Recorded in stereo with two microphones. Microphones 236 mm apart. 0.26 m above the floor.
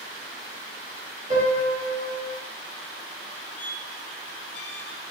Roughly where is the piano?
Right.